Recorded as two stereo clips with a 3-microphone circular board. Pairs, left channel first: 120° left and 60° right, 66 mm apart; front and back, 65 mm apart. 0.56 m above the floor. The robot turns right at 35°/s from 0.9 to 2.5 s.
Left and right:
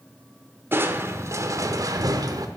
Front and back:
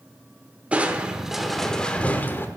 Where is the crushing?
110° right, 0.9 m; by 2.5 s 55° right, 0.9 m.